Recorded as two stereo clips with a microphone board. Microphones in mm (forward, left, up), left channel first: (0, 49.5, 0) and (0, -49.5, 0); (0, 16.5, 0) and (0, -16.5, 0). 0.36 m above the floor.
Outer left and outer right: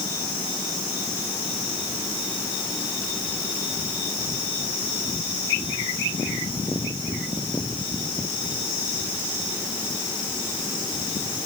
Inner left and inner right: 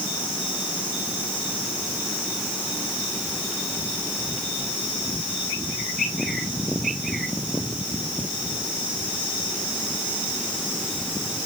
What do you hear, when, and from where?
Only background noise.